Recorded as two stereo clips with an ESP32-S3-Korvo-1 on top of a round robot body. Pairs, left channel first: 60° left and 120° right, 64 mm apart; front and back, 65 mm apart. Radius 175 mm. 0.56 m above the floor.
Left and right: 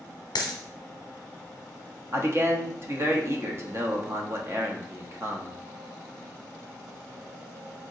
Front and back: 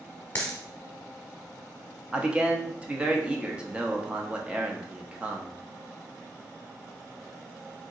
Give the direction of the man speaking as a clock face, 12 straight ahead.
4 o'clock.